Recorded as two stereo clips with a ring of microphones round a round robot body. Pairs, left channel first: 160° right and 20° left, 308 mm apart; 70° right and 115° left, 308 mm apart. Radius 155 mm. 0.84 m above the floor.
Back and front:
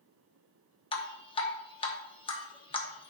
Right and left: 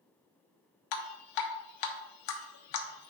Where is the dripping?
85° right, 1.0 m.